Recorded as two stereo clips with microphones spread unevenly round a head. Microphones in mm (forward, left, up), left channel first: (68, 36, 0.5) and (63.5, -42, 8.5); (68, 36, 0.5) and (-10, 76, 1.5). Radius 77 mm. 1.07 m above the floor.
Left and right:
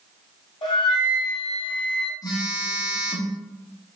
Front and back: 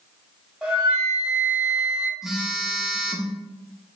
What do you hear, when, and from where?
0.6 s a flute: 80° left, 1.6 m
2.2 s a phone buzzing: 65° left, 0.9 m